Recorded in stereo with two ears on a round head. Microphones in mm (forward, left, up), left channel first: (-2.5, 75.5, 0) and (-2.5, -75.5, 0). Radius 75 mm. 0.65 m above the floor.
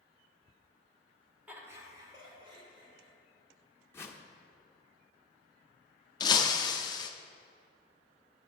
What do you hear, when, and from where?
1.5 s laughter: 10° right (ahead or behind), 1.3 m; by 3.1 s 35° right (ahead or behind), 3 m
3.9 s a whoosh: 15° left (ahead or behind), 0.6 m
6.2 s breaking glass: 25° left (ahead or behind), 0.5 m